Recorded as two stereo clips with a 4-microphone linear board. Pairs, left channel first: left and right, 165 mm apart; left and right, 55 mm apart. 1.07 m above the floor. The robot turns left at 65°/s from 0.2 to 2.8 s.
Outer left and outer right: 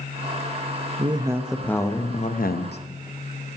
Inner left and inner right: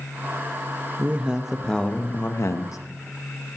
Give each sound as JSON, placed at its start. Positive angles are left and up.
{"t": 1.0, "sound": "a man speaking", "azimuth_deg": -145, "distance_m": 0.8}